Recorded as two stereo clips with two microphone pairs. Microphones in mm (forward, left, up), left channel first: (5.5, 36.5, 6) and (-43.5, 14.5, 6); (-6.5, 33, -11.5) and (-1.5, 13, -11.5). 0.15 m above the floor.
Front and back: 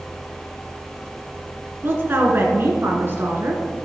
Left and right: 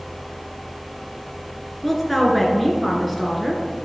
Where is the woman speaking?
170° right, 1.8 m.